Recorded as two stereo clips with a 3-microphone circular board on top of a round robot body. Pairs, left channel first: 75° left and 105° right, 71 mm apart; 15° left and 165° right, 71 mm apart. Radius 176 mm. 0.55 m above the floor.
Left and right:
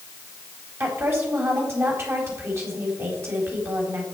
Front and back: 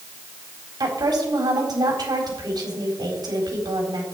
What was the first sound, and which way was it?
A woman speaking, 155° right.